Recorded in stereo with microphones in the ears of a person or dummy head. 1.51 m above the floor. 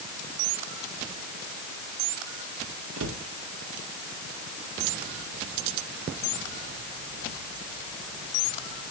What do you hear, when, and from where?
3.0 s a cupboard door: 80° right, 1.7 m